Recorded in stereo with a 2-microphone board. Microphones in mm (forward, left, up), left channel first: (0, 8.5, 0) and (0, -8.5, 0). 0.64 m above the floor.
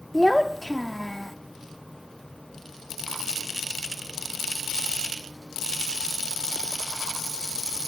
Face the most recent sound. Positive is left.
turn(degrees=5)  # may be behind; listen again after turning